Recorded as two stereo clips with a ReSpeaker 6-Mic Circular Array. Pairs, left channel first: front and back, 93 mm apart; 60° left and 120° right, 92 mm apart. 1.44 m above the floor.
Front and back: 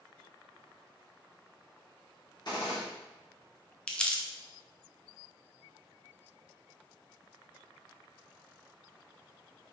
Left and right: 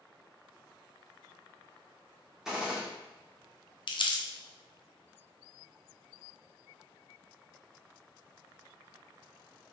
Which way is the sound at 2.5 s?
35° right.